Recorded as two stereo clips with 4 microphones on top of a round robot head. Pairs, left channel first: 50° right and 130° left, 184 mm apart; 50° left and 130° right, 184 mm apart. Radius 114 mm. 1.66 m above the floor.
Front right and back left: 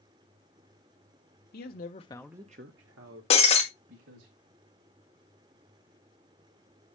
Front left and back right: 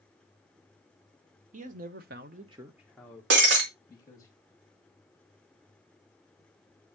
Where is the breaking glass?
105° right, 2.5 m.